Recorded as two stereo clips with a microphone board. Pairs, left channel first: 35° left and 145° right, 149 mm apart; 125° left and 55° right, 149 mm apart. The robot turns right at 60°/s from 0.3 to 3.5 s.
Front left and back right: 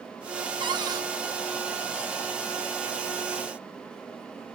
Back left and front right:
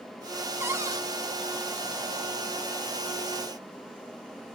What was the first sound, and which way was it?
A cupboard door, 120° right.